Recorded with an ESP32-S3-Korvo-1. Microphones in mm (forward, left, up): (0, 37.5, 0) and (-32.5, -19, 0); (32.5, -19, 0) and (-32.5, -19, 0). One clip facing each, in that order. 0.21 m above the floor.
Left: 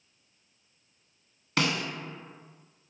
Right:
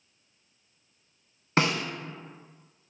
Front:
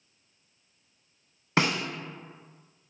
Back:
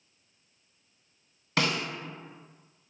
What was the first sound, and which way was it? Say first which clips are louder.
A snare drum: right 3 dB, front 2 dB; 60° right.